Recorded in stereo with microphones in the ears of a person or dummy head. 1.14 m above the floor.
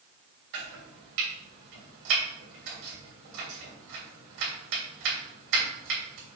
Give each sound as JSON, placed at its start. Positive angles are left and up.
{"t": 0.5, "sound": "chopping", "side_deg": -70, "distance_m": 3.0}